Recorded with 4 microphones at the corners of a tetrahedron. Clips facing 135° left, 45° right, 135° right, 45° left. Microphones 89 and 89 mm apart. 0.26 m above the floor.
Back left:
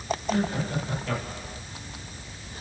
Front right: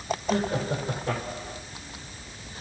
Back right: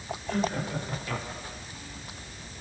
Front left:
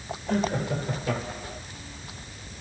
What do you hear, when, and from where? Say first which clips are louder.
0.3 s laughter: front right 1 dB, front left 3 dB; 5° left, 5.5 m; by 1.6 s 20° left, 6 m